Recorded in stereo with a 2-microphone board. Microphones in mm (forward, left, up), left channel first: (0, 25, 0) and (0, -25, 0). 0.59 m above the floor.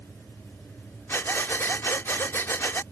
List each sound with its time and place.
1.1 s breathing: 50° left (ahead or behind)